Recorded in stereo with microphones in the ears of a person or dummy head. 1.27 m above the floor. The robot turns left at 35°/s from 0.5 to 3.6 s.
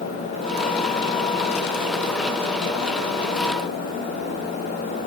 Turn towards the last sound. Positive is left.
No sound to turn to.